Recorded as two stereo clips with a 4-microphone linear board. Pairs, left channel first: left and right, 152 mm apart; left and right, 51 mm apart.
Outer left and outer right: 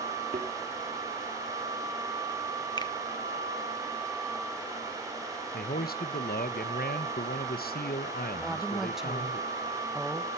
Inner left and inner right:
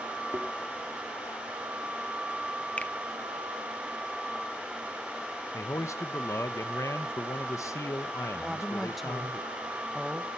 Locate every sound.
0.3 s a thud: 55° right (ahead or behind), 2.5 m
2.8 s a finger snap: 30° left (ahead or behind), 0.6 m
5.5 s a man speaking: 85° left, 1.1 m
8.4 s a woman speaking: 5° right (ahead or behind), 1.4 m